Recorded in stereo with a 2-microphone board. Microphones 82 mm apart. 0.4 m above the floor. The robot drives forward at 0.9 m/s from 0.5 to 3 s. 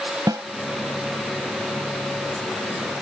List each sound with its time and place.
0.3 s a snare drum: 50° right (ahead or behind)